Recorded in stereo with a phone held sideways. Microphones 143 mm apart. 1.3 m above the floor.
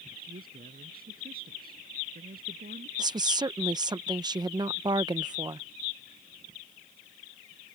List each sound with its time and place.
0.2 s a man speaking: 85° right
3.0 s a woman speaking: 30° right (ahead or behind)